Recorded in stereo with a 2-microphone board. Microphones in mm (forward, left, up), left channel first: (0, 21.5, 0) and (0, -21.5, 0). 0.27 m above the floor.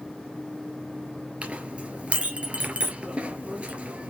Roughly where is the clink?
Right.